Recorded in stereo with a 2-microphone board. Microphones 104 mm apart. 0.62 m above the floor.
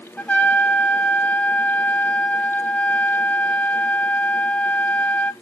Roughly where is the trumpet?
Centre.